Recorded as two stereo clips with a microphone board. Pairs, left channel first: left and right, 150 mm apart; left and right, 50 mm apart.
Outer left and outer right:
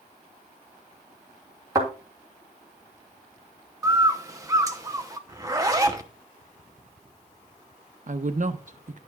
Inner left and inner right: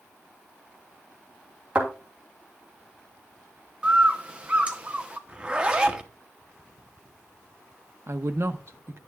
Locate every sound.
1.8 s a thud: 25° right (ahead or behind), 3 m
3.8 s a bird: 20° right (ahead or behind), 0.7 m
5.3 s a zipper: 20° right (ahead or behind), 0.7 m
8.1 s a woman speaking: 55° right (ahead or behind), 0.7 m